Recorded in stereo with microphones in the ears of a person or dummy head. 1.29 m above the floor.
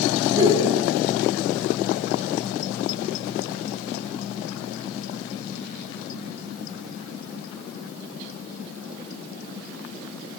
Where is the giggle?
15° right (ahead or behind), 1.1 m.